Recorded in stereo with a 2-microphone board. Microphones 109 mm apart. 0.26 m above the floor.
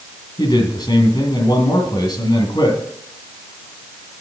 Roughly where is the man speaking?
Left.